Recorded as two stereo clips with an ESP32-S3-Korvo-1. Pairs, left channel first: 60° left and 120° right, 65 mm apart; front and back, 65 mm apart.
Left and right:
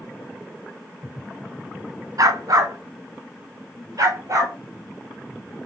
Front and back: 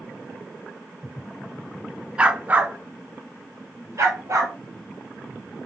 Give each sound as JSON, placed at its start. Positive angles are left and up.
{"t": 2.2, "sound": "a dog barking", "azimuth_deg": -110, "distance_m": 0.8}